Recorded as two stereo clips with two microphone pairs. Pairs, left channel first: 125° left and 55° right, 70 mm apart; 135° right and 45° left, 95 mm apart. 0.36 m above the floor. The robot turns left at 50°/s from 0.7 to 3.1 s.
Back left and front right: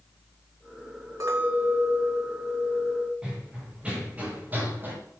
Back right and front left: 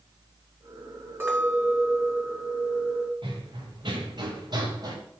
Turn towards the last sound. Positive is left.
turn(degrees=5)